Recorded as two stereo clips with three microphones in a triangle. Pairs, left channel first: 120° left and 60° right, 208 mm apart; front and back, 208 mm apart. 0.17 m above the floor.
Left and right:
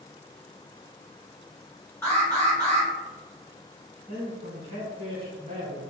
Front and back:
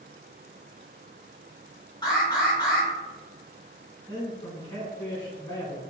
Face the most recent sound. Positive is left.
turn(degrees=-45)